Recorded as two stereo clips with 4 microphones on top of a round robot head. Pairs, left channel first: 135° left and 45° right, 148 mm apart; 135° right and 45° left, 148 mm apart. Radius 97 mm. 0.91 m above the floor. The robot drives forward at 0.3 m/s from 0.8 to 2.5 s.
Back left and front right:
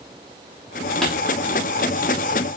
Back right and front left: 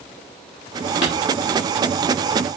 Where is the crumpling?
135° right, 3.5 m.